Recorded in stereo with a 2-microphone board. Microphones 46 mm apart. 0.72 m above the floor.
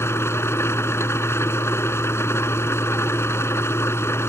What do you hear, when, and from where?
0.0 s an engine running: 75° left (ahead or behind)